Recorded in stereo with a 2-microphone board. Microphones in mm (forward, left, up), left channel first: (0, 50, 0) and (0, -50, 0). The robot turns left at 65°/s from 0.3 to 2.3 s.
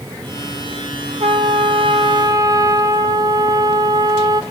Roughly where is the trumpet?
Right.